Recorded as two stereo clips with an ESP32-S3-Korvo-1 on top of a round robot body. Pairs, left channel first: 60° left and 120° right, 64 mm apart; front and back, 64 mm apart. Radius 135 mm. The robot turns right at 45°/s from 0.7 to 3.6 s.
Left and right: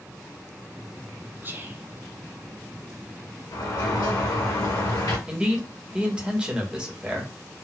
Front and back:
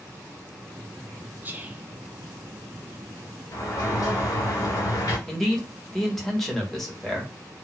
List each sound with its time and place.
1.4 s whispering: 145° right, 1.0 m; by 1.9 s 125° right, 1.0 m
3.5 s a sliding door: 35° left, 1.4 m; by 5.2 s 40° left, 1.4 m
5.3 s a man speaking: 80° right, 1.5 m